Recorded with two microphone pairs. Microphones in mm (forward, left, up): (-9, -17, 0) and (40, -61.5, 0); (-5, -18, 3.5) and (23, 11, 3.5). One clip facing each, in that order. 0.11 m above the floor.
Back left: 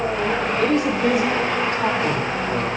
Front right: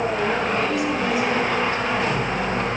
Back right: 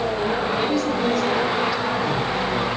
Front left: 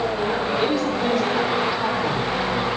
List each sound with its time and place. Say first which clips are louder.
0.6 s a woman speaking: back left 3 dB, even; 120° left, 3 m; by 2.7 s 125° left, 5.5 m